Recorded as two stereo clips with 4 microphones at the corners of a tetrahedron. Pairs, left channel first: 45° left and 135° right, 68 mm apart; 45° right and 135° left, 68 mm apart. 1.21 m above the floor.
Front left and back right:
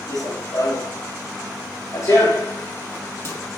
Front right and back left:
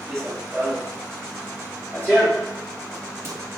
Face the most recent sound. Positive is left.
turn(degrees=0)